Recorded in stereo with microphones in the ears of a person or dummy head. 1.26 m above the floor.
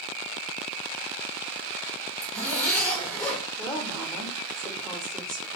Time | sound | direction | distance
2.2 | a zipper | 10° left (ahead or behind) | 1.4 m
3.6 | a woman speaking | centre (ahead or behind) | 0.9 m